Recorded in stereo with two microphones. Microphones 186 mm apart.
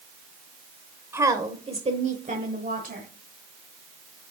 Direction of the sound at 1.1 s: 15° right (ahead or behind).